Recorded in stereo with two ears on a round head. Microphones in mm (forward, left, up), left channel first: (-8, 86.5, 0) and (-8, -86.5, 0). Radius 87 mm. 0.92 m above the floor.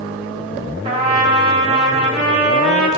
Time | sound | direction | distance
0.8 | a trumpet | 30° right (ahead or behind) | 1.5 m